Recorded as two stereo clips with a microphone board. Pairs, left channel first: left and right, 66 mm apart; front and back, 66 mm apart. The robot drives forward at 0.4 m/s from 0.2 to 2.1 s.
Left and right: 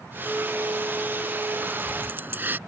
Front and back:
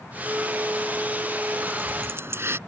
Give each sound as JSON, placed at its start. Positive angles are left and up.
{"t": 1.6, "sound": "keys jangling", "azimuth_deg": -130}